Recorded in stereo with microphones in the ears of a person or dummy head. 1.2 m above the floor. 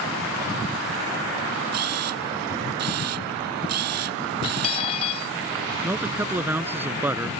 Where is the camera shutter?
70° right (ahead or behind).